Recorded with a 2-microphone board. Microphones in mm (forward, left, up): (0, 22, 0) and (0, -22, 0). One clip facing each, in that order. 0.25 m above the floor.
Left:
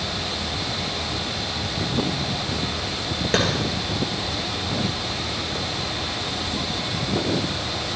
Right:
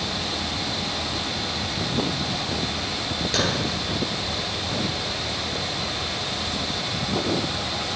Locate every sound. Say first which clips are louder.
3.3 s a clap: left 4 dB; 35° left (ahead or behind), 3 m